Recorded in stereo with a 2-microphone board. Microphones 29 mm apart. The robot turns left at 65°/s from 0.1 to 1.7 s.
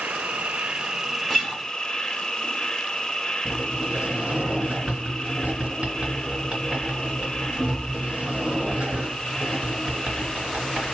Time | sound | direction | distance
0.0 | an insect | 95° right | 0.9 m
1.3 | a guitar | 10° right (ahead or behind) | 1.6 m
3.5 | a sliding door | 45° right (ahead or behind) | 2 m